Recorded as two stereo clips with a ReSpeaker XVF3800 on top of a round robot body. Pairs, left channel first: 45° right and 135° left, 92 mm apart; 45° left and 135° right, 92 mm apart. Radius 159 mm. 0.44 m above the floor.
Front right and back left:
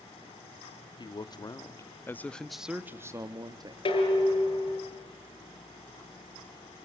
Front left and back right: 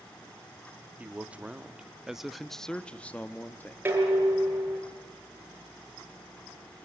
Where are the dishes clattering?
65° right, 6.5 m.